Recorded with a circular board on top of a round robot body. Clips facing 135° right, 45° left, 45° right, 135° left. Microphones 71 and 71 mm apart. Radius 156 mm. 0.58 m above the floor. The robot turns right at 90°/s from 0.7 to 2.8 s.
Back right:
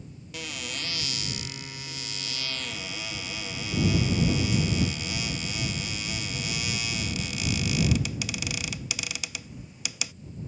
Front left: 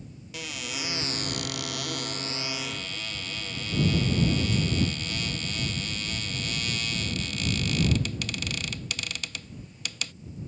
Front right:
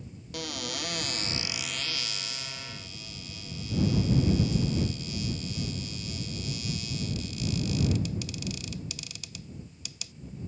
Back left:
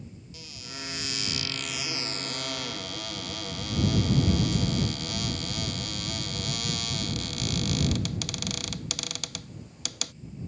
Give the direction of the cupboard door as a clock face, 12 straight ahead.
1 o'clock.